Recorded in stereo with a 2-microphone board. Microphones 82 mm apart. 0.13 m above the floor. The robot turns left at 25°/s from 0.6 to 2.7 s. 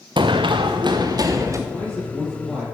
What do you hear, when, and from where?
0.2 s running footsteps: 80° right, 0.7 m; by 1.6 s 40° right (ahead or behind), 1.9 m
1.7 s a man speaking: 20° left (ahead or behind), 4 m; by 2.6 s 5° right (ahead or behind), 4 m